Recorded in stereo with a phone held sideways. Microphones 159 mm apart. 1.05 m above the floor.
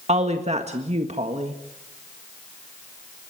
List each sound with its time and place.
0.1 s a woman speaking: 45° right (ahead or behind), 1.5 m